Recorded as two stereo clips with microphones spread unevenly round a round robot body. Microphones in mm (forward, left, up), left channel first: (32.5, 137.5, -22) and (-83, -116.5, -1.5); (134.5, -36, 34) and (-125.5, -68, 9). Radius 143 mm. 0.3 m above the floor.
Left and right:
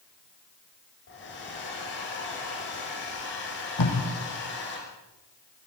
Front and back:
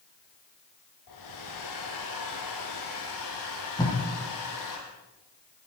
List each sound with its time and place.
1.1 s a hair dryer: 10° left, 6.5 m
3.8 s tape being pulled: 85° left, 7 m